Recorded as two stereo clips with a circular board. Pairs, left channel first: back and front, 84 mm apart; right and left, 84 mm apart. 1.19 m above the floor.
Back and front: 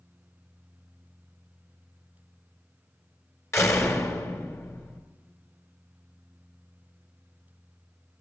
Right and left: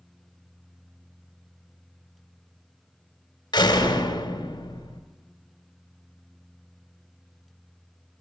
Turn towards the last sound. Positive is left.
turn(degrees=-125)